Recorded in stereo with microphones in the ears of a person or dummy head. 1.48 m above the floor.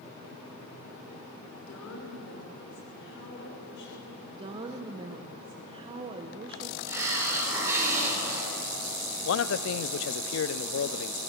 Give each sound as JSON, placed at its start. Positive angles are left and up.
{"t": 1.6, "sound": "a woman speaking", "side_deg": 70, "distance_m": 6.0}
{"t": 4.3, "sound": "a woman speaking", "side_deg": -35, "distance_m": 0.9}
{"t": 6.9, "sound": "a hiss", "side_deg": -10, "distance_m": 5.0}
{"t": 9.2, "sound": "a man speaking", "side_deg": 65, "distance_m": 0.7}